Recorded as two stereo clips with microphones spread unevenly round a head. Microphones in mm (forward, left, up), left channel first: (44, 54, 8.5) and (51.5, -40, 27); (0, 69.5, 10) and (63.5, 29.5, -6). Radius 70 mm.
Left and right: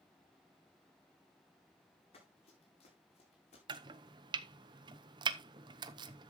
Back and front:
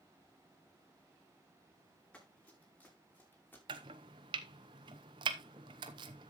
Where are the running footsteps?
75° left, 6.5 m; by 3.6 s 90° left, 5 m.